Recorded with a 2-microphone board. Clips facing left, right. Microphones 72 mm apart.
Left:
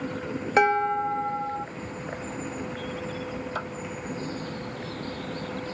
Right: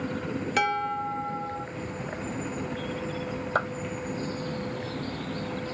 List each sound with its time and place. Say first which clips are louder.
0.6 s dishes clattering: left 6 dB; 30° left (ahead or behind), 0.8 m
3.5 s a clap: right 9 dB; 50° right (ahead or behind), 1.4 m